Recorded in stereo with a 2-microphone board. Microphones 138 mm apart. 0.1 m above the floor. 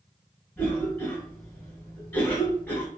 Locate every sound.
0.6 s a cough: 15° left (ahead or behind), 1.5 m